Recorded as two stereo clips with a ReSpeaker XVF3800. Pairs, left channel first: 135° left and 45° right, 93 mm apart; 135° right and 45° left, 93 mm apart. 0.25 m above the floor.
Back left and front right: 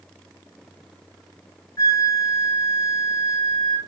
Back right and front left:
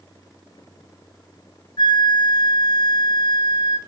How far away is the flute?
About 1.2 m.